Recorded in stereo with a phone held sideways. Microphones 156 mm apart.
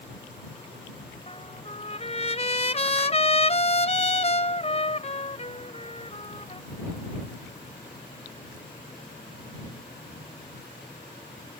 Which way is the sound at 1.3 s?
45° left (ahead or behind).